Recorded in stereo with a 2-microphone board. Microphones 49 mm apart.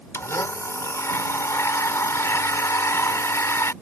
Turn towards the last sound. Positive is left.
turn(degrees=70)  # may be behind; listen again after turning